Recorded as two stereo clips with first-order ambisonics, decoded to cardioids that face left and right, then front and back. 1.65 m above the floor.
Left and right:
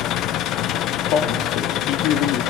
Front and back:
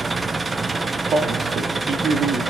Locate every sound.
0.0 s an engine running: 105° left, 0.8 m
1.1 s a man speaking: 120° left, 3 m